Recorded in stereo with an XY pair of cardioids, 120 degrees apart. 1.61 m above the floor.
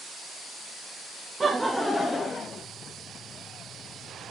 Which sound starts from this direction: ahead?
Laughter, at 1.4 s.